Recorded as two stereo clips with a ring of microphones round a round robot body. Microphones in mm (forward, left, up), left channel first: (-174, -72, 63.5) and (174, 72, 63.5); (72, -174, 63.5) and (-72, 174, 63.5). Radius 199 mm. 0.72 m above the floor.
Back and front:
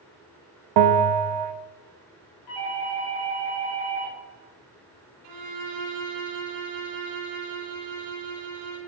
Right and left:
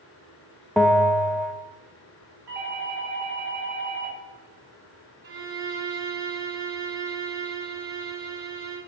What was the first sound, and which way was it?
A bell, 20° left.